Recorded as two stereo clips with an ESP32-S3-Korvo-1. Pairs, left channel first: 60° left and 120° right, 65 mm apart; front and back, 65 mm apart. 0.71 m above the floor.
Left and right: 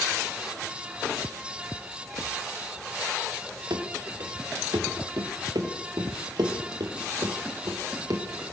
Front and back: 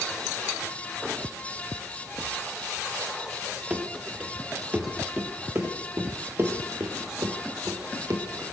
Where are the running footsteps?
105° right, 5 m; by 8.2 s 145° right, 5 m.